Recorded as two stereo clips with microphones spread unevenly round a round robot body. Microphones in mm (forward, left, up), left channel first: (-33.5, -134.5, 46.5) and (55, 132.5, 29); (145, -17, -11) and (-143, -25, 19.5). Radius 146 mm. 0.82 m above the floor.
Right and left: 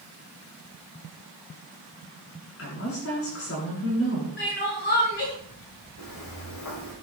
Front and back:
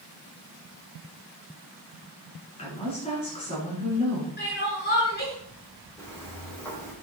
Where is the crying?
55° right, 6.5 m.